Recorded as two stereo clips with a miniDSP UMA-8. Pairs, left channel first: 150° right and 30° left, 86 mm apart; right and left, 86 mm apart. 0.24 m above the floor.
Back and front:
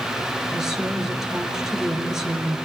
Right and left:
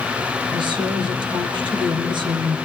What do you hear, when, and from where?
0.5 s a woman speaking: 115° left, 3.5 m